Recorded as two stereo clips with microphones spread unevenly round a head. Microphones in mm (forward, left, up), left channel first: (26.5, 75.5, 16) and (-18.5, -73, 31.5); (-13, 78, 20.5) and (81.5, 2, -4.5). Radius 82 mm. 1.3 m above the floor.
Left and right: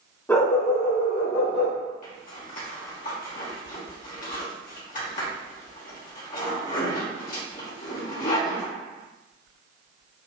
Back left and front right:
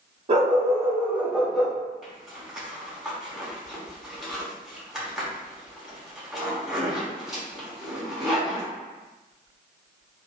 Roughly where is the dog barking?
Ahead.